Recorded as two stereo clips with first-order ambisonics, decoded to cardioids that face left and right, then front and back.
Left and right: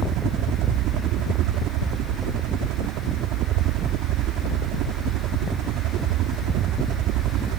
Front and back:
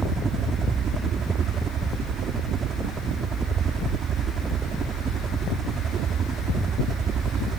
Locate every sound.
0.0 s a helicopter: 120° right